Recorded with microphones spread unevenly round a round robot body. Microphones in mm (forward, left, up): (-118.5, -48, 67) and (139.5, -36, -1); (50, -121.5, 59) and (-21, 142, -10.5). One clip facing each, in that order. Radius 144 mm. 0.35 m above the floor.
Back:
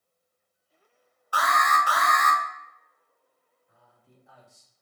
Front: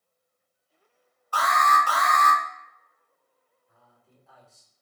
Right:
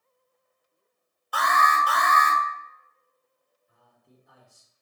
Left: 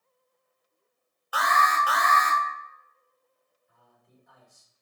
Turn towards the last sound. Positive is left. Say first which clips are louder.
# back 1 dB, right 2 dB
turn(degrees=-90)